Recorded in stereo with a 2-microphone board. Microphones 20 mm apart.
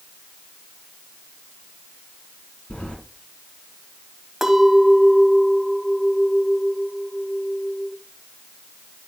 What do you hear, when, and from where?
2.7 s keys jangling: 80° left, 5.5 m
4.4 s a clink: 20° right (ahead or behind), 1.5 m